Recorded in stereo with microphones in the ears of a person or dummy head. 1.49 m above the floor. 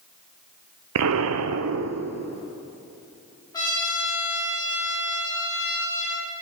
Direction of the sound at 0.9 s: 85° right.